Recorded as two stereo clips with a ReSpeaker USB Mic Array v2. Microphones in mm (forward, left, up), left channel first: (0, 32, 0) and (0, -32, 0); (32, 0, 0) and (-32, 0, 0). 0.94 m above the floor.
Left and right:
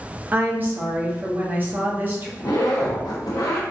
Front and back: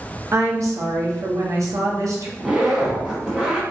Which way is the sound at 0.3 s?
150° right.